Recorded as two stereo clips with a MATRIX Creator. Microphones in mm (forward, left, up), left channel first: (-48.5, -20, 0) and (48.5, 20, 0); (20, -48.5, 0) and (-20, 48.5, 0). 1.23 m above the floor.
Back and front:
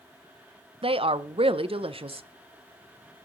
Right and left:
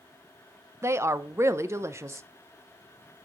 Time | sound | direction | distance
0.8 | a woman speaking | 50° left | 0.6 m